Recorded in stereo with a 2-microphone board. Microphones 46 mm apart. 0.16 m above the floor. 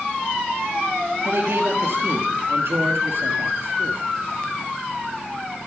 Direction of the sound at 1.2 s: 60° right (ahead or behind).